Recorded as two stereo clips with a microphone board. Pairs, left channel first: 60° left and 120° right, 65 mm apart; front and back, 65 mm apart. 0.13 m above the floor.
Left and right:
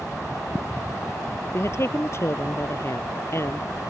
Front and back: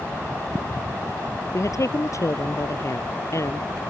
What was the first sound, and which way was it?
A woman speaking, 25° left.